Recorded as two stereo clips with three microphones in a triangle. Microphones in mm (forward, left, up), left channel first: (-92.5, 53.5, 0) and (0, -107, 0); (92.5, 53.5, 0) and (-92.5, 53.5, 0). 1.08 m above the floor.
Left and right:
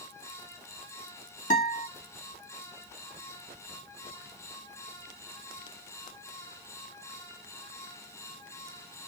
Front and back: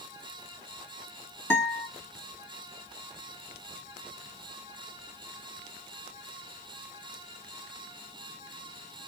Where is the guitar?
75° left, 1.9 m.